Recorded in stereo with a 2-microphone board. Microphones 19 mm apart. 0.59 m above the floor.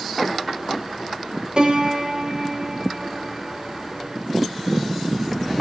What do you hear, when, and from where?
1.6 s a piano: 55° right (ahead or behind), 3.5 m